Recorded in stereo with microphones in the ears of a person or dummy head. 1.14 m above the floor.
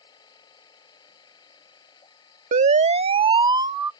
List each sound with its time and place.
0.0 s a machine running: 25° left (ahead or behind)
2.5 s a siren: 40° right (ahead or behind); by 3.9 s 15° right (ahead or behind)